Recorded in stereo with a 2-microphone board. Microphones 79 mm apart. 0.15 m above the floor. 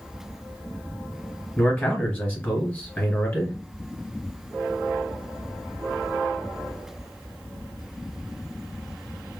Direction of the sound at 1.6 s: 20° left (ahead or behind).